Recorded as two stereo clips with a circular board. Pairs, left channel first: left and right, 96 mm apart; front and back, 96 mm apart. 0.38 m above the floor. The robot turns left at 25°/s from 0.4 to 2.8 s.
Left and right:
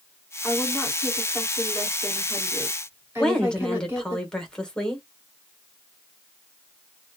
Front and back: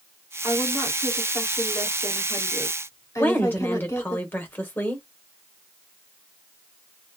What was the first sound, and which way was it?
A woman speaking, 25° left.